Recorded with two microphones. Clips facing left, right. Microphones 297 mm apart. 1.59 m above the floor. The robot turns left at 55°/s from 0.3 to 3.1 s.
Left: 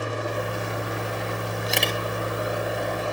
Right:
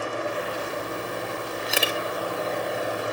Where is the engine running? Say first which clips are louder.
Even; 135° left, 4.5 m; by 3.1 s 20° right, 4.5 m.